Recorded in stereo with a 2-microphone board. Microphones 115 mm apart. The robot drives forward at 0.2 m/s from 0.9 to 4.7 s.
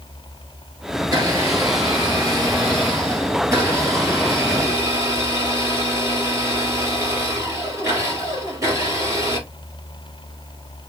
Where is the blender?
35° right (ahead or behind), 3 m; by 9.5 s 30° right (ahead or behind), 3.5 m.